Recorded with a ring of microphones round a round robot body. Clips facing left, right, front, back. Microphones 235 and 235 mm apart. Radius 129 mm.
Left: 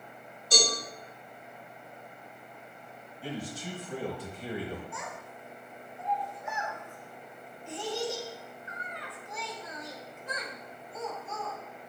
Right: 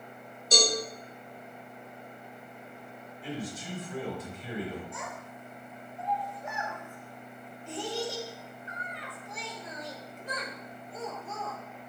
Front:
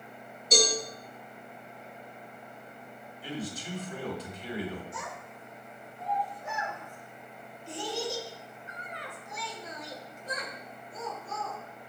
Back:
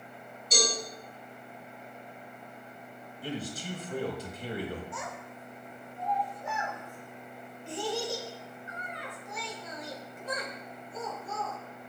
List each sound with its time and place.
0.5 s a cowbell: 25° right, 3.5 m
3.2 s a man speaking: 145° left, 3.5 m
4.9 s a child speaking: 145° right, 2 m